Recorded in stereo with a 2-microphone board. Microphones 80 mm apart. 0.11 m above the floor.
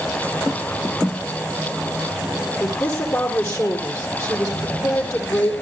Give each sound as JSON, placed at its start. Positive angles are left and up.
{"t": 2.6, "sound": "a woman speaking", "side_deg": 35, "distance_m": 4.5}